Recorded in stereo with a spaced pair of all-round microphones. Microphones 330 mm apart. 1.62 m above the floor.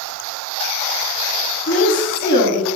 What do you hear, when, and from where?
1.7 s a woman speaking: 50° left (ahead or behind), 3 m; by 2.7 s 60° left (ahead or behind), 3 m